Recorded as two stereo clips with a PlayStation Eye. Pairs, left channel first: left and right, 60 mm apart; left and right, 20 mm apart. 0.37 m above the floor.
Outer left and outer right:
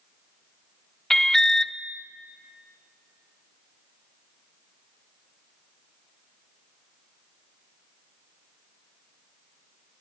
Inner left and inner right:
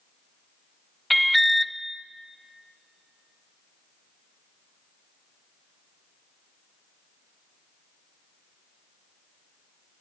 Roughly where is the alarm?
Centre.